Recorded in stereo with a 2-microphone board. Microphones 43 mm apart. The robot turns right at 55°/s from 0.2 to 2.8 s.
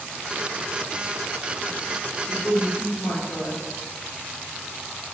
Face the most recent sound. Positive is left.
turn(degrees=75)  # may be behind; listen again after turning